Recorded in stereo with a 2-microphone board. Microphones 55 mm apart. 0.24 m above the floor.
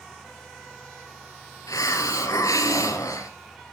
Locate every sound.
1.7 s a hiss: 80° left, 1.9 m